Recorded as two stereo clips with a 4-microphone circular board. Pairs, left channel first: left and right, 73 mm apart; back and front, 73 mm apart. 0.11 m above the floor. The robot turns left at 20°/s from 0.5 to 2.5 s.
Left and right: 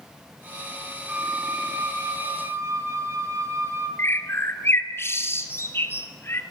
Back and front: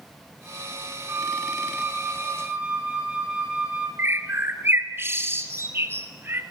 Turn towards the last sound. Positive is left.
turn(degrees=45)